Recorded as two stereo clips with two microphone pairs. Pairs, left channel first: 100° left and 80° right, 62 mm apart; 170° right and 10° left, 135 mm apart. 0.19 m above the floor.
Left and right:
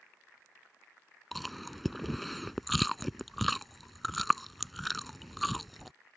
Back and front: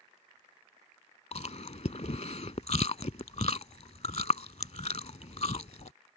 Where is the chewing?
170° right.